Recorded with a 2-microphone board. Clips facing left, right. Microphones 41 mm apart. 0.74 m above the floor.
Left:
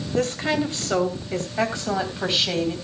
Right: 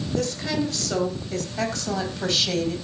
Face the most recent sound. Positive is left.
turn(degrees=15)  # may be behind; listen again after turning